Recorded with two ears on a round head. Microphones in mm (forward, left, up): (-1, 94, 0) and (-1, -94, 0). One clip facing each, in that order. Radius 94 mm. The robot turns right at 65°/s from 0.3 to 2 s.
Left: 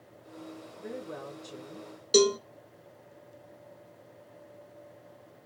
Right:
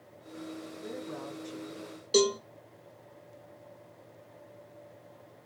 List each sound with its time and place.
0.8 s a woman speaking: 10° left, 1.8 m; by 1.9 s 85° left, 1.8 m
2.1 s a cowbell: 20° left (ahead or behind), 0.8 m